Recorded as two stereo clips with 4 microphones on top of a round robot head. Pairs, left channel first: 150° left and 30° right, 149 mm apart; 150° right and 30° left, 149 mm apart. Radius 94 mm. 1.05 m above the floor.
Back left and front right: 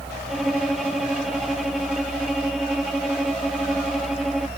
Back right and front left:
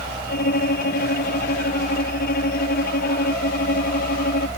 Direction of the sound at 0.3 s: 120° right.